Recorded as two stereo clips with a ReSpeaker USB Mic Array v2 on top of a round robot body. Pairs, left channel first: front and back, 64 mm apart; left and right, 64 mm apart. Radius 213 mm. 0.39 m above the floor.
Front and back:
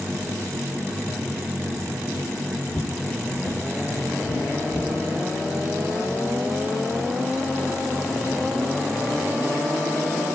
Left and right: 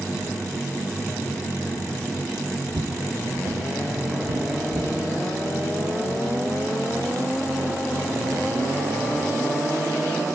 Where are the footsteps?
60° right, 1.0 m; by 4.9 s 45° right, 2 m.